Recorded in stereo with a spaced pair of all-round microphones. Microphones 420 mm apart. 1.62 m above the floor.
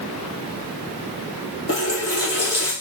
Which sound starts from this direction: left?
A running tap, at 1.7 s.